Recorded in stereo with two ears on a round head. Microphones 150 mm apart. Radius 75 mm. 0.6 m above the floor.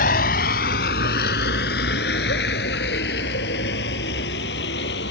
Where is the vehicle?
60° left (ahead or behind); by 5.1 s 75° left (ahead or behind).